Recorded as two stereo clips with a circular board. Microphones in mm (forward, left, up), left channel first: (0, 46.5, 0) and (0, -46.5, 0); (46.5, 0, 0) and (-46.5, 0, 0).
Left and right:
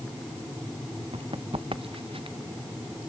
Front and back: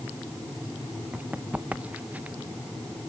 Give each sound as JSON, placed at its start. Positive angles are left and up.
{"t": 1.1, "sound": "running footsteps", "azimuth_deg": -105}